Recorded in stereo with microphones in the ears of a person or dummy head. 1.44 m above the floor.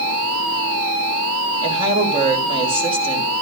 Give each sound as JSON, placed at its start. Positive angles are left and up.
{"t": 1.6, "sound": "a woman speaking", "side_deg": -25, "distance_m": 2.5}